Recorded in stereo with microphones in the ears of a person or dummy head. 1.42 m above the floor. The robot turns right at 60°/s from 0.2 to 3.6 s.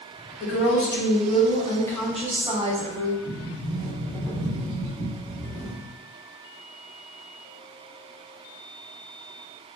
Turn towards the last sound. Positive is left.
turn(degrees=5)  # may be behind; listen again after turning